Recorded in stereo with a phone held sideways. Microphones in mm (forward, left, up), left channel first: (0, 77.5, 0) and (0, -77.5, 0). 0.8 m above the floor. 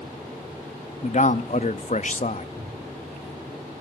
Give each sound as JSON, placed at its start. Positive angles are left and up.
{"t": 1.0, "sound": "a man speaking", "side_deg": 50, "distance_m": 0.8}
{"t": 2.6, "sound": "a cupboard door", "side_deg": -30, "distance_m": 2.5}